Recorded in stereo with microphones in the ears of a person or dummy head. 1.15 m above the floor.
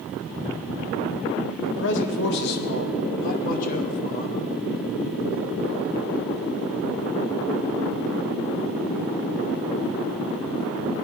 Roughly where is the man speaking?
Left.